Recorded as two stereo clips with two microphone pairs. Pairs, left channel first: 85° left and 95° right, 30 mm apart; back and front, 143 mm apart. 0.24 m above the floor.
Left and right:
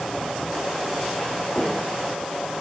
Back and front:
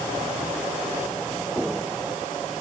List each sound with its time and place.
Only background noise.